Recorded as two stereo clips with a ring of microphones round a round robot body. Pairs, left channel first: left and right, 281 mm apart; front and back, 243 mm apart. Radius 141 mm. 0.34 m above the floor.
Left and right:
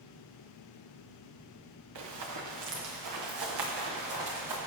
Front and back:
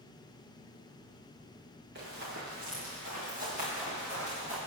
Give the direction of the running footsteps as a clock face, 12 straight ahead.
4 o'clock.